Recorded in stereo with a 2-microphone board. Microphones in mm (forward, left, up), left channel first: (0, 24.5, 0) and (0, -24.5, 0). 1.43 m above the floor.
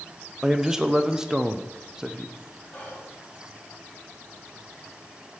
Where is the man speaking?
10° right (ahead or behind), 0.5 m.